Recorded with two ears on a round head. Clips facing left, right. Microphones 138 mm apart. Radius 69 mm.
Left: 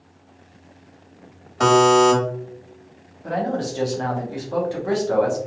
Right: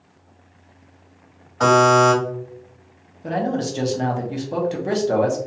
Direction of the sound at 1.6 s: 35° left (ahead or behind).